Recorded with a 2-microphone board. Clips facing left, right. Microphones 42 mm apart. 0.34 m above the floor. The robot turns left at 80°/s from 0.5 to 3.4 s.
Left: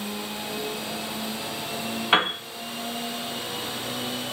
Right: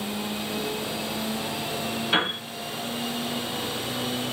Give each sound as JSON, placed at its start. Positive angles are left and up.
{"t": 2.1, "sound": "a piano", "side_deg": 55, "distance_m": 0.8}